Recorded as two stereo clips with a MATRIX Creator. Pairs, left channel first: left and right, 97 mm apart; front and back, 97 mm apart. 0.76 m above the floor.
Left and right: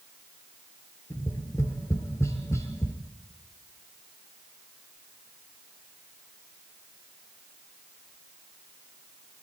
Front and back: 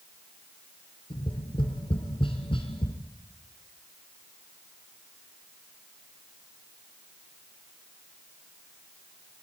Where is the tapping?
30° left, 3 m.